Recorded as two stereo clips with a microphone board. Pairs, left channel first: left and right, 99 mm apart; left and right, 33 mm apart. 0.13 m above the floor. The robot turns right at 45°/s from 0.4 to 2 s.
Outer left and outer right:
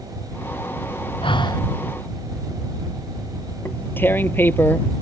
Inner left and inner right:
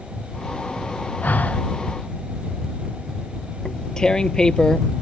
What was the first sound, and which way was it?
Breathing, 60° left (ahead or behind).